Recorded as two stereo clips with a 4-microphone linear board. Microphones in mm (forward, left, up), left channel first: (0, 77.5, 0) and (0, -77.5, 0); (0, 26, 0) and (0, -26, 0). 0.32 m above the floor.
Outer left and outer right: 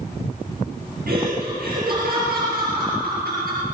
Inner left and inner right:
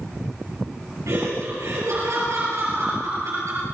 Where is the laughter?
75° right (ahead or behind), 6.5 m.